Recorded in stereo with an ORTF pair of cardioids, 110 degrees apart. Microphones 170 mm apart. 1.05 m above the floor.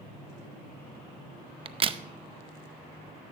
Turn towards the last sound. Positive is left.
turn(degrees=-35)